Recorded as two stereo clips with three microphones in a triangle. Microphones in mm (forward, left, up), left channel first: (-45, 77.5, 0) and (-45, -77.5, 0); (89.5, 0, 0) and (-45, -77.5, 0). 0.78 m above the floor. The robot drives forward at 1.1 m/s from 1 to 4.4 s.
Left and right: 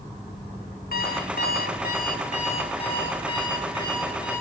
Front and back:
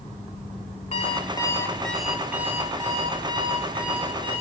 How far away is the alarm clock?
About 1.4 m.